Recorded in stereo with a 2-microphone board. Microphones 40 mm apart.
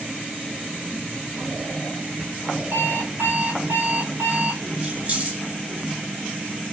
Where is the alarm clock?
60° right (ahead or behind), 1.4 m.